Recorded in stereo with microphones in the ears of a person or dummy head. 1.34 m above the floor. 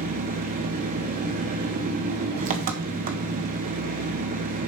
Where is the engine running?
45° right (ahead or behind), 1.4 m.